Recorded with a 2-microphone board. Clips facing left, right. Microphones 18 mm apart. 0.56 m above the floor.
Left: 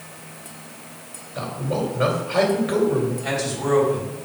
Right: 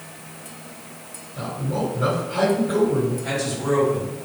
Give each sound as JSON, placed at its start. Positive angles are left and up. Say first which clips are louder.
{"t": 1.4, "sound": "a man speaking", "louder": "left 1 dB", "side_deg": 55, "distance_m": 2.0}
{"t": 3.2, "sound": "a man speaking", "louder": "even", "side_deg": 20, "distance_m": 3.0}